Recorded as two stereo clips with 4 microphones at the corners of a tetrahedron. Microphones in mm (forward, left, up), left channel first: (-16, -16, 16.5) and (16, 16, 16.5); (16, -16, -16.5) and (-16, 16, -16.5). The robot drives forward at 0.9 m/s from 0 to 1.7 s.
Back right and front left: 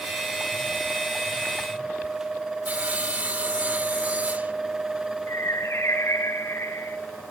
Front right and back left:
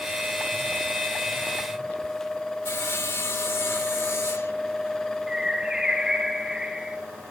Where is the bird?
145° right, 1.9 m.